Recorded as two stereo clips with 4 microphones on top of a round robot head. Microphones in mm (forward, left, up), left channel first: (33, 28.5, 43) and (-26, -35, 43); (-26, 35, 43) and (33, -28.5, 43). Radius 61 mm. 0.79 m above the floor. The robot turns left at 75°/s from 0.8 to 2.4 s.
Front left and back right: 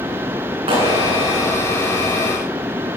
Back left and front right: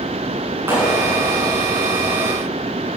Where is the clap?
115° right, 7.5 m; by 1.5 s 170° right, 7.5 m.